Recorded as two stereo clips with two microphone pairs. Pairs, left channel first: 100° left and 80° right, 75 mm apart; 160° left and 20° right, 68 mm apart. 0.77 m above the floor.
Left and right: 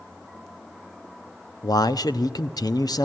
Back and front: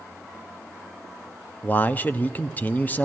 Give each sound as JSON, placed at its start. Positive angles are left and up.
{"t": 1.6, "sound": "a man speaking", "azimuth_deg": 100, "distance_m": 0.8}